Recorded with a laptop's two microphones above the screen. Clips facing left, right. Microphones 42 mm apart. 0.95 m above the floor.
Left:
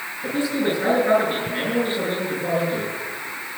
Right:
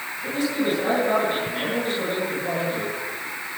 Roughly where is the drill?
I don't hear a drill.